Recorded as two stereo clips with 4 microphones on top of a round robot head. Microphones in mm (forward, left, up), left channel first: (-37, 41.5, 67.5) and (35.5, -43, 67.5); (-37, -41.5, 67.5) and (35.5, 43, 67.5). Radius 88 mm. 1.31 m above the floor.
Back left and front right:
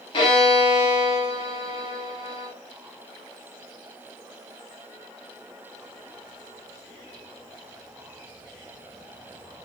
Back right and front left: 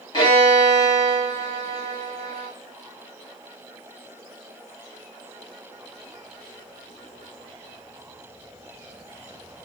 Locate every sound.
0.1 s a violin: 170° left, 2.5 m